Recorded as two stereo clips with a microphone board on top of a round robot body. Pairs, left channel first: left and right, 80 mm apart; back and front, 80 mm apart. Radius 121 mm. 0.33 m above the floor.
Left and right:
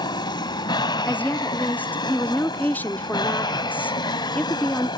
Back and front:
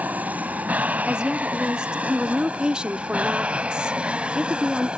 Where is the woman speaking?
65° left.